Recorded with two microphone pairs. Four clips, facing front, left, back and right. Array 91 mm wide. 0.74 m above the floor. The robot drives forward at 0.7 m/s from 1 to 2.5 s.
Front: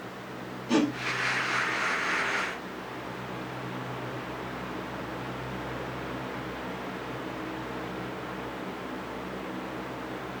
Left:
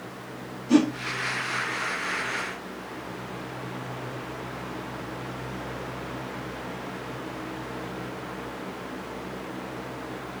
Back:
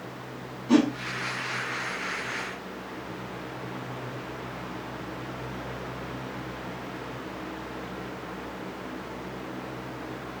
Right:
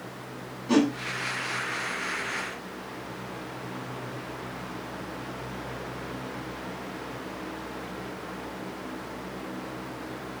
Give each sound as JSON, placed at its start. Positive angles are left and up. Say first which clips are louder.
{"t": 0.7, "sound": "a whoosh", "louder": "left 2 dB, back 4 dB", "azimuth_deg": -115, "distance_m": 1.7}